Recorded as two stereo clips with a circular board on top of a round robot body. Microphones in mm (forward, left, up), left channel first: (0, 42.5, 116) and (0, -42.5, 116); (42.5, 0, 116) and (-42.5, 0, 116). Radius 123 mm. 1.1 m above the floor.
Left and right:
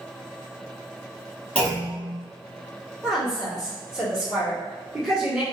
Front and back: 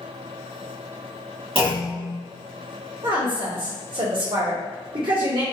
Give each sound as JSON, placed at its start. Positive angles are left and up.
{"t": 1.6, "sound": "a clunk", "azimuth_deg": 165, "distance_m": 1.4}
{"t": 3.0, "sound": "a woman speaking", "azimuth_deg": -170, "distance_m": 1.4}